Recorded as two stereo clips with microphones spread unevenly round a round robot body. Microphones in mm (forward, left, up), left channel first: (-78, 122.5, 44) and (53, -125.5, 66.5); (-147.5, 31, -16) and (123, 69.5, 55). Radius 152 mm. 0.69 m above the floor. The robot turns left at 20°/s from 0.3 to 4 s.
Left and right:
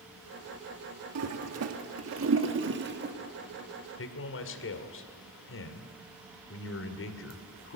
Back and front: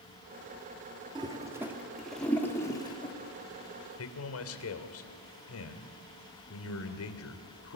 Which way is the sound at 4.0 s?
160° left.